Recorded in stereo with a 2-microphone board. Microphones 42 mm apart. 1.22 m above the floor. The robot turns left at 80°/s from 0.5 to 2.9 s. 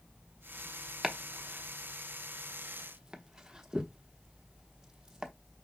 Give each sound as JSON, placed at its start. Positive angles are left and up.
{"t": 1.0, "sound": "chopping", "side_deg": -10, "distance_m": 0.9}